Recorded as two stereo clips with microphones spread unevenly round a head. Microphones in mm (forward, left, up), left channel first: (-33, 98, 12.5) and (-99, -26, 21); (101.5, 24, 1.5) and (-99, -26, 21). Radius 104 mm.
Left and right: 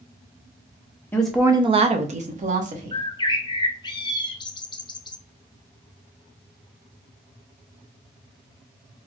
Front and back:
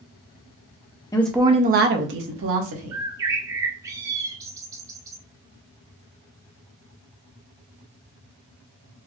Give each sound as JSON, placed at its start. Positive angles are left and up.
{"t": 1.1, "sound": "a woman speaking", "azimuth_deg": 25, "distance_m": 0.5}
{"t": 2.9, "sound": "a bird", "azimuth_deg": 120, "distance_m": 0.5}